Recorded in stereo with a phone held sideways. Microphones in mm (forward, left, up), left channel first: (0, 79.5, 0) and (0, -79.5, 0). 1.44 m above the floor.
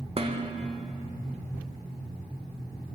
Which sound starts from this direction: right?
Dishes clattering, at 0.2 s.